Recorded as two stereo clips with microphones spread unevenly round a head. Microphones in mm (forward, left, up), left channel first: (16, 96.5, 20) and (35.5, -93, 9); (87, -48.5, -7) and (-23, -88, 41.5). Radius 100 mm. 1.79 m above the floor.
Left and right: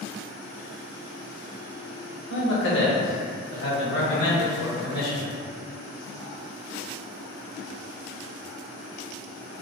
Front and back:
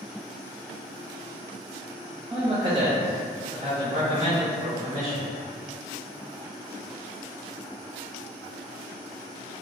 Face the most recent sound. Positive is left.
turn(degrees=135)